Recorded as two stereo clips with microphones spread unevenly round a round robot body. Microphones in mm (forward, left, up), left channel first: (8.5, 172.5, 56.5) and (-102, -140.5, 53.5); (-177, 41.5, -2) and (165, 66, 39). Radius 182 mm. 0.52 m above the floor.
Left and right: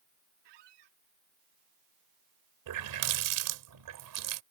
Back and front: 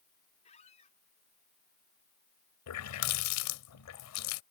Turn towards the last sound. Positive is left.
turn(degrees=-135)